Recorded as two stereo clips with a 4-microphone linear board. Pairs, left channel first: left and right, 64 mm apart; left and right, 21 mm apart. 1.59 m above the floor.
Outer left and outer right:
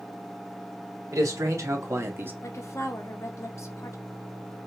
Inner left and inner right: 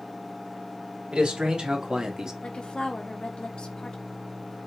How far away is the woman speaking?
About 0.9 m.